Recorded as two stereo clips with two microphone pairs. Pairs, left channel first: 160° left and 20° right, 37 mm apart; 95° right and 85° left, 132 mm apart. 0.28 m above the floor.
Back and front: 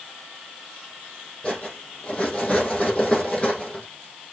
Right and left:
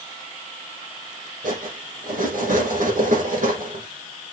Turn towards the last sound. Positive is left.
turn(degrees=95)